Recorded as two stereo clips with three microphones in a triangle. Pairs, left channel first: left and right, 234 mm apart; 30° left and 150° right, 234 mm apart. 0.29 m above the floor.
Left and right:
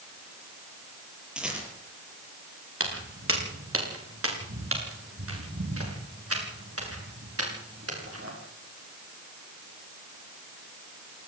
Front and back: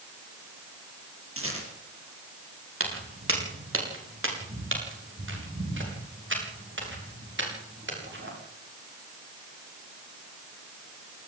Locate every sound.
1.4 s a rattle: 175° right, 8 m
2.8 s footsteps: 120° right, 6.5 m; by 8.3 s 110° right, 9.5 m